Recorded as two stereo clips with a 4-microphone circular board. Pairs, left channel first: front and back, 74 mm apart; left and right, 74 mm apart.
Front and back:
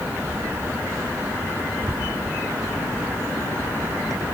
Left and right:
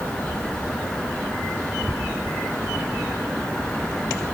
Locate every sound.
Only background noise.